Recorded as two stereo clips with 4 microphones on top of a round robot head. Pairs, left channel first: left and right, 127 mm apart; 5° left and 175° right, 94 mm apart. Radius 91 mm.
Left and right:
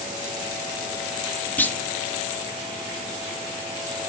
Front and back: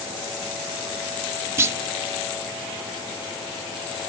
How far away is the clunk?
About 0.7 m.